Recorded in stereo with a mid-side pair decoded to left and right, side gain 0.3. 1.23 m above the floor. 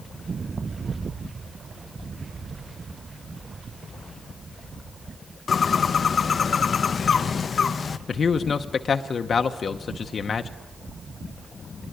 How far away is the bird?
About 0.7 m.